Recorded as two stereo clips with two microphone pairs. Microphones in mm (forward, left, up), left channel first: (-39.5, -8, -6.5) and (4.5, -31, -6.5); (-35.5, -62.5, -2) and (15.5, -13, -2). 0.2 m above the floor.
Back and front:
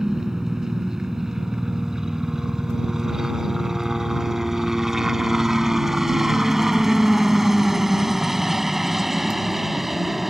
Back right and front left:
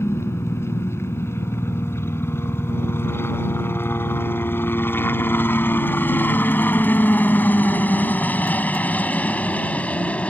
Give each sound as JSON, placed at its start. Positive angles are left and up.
{"t": 0.0, "sound": "a helicopter", "azimuth_deg": -105}